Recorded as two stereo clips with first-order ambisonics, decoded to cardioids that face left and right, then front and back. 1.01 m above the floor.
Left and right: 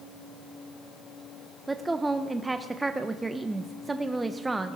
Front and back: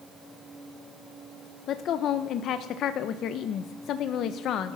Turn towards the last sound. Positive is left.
turn(degrees=-15)